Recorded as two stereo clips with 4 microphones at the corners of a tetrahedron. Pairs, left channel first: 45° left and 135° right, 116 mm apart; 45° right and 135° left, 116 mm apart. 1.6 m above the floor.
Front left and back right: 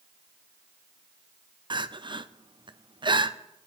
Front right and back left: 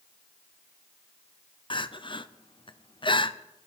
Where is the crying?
85° right, 0.6 m.